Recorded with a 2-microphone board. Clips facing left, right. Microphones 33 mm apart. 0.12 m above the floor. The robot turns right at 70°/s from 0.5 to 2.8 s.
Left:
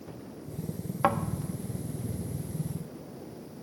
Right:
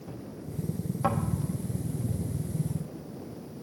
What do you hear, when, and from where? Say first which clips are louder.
1.0 s a thud: left 3 dB; 40° left (ahead or behind), 1.2 m; by 1.2 s 30° left (ahead or behind), 1.2 m